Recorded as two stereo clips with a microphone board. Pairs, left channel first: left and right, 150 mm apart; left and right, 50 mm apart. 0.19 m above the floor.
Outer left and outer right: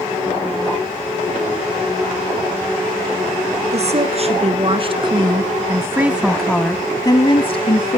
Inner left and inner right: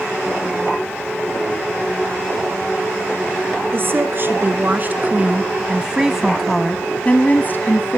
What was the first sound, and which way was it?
A woman speaking, 45° right (ahead or behind).